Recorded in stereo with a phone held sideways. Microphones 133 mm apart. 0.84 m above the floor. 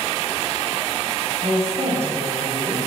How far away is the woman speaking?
About 4.5 m.